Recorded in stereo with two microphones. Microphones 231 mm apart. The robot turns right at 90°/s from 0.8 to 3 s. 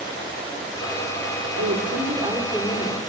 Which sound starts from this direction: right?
A woman speaking, at 1.6 s.